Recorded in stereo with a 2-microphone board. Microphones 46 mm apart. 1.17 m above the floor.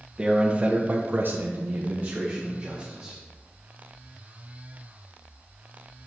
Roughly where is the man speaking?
Centre.